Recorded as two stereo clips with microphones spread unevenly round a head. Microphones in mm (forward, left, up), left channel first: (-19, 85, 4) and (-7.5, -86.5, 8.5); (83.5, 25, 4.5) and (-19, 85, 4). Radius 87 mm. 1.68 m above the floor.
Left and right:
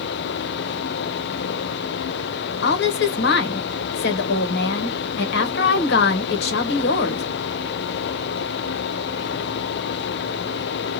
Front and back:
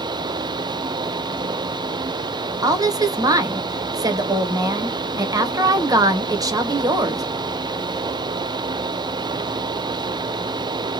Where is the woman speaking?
95° left, 1.0 m.